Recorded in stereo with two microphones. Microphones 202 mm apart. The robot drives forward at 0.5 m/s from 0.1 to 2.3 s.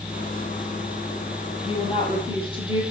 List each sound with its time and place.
1.6 s a woman speaking: 30° left (ahead or behind), 3 m; by 2.8 s 25° left (ahead or behind), 3 m